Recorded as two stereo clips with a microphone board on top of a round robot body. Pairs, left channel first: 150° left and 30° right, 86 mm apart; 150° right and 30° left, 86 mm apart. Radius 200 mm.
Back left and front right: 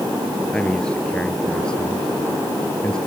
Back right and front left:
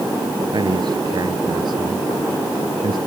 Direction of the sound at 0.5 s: 70° left.